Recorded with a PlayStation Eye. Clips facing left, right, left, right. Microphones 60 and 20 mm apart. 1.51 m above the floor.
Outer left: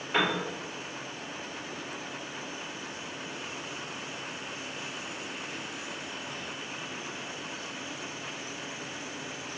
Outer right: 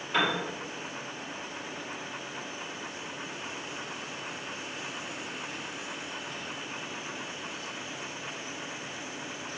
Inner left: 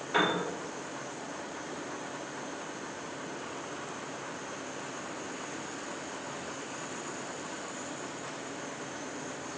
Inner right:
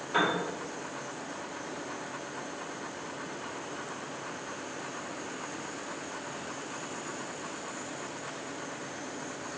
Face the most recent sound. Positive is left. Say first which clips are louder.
# even, even
turn(degrees=20)  # may be behind; listen again after turning